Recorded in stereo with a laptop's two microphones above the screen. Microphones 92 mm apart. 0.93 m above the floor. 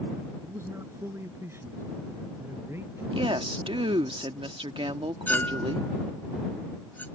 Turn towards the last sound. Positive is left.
turn(degrees=20)  # may be behind; listen again after turning